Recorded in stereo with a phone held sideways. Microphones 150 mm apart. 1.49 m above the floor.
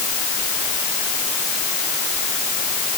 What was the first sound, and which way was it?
Only background noise.